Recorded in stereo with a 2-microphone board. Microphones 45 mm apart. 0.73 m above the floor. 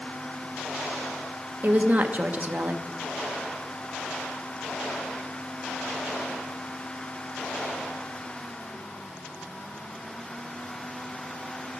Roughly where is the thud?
I don't hear a thud.